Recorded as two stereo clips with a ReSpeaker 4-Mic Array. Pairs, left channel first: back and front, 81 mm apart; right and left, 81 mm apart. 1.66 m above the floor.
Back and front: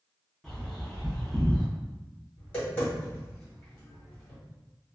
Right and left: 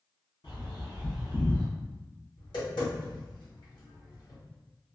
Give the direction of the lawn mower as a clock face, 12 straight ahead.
I don't hear a lawn mower.